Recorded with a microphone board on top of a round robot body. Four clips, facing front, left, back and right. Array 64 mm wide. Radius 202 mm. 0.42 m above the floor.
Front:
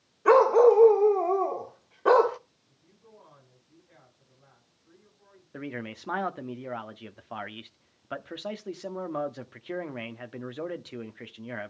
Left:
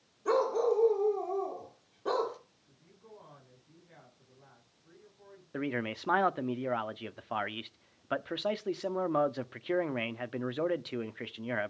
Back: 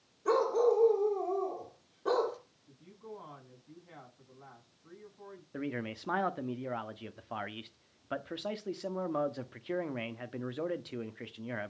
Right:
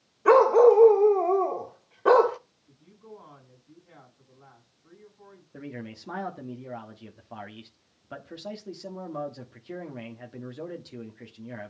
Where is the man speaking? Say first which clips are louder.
Left 6 dB, front 1 dB; 80° left, 1.3 m.